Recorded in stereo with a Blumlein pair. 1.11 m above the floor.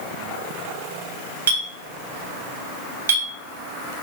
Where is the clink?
65° right, 1.2 m.